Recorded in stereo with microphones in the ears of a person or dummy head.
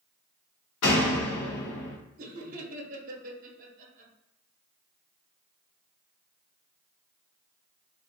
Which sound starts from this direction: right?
Laughter, at 2.2 s.